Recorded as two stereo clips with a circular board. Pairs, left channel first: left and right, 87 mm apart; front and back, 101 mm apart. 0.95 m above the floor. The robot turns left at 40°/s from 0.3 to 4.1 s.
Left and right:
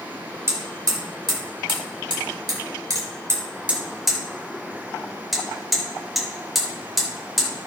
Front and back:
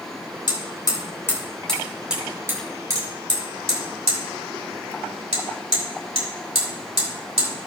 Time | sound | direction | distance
0.5 | hammering | 35° right | 3 m